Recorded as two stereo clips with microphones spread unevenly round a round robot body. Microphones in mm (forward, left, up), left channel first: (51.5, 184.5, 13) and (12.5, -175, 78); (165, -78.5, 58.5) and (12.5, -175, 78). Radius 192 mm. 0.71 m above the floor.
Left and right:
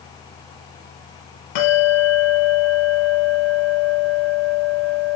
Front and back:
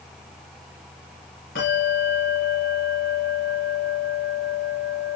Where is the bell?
90° left, 5 m.